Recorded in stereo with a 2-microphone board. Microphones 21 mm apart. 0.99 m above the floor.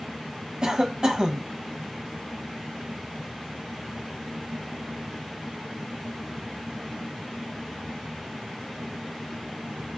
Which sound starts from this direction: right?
A cough, at 0.6 s.